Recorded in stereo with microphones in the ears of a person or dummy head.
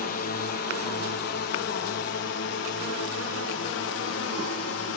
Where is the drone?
50° left (ahead or behind); by 5.0 s 75° left (ahead or behind).